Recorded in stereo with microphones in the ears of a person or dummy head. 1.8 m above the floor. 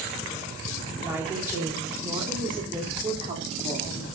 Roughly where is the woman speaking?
Centre.